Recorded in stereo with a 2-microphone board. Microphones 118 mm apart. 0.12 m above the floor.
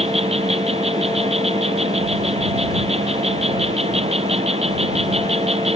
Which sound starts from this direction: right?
An insect, at 0.0 s.